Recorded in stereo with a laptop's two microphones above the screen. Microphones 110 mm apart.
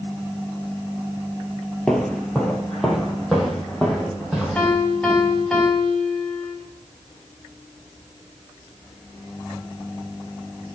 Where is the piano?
5° left (ahead or behind), 3.5 m.